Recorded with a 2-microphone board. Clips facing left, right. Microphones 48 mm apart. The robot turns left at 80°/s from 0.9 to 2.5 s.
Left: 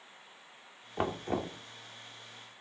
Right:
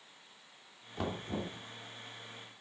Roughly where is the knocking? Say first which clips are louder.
Left 5 dB; behind left.